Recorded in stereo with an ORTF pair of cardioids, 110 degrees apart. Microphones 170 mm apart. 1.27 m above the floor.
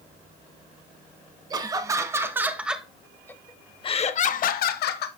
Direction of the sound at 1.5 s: 20° right.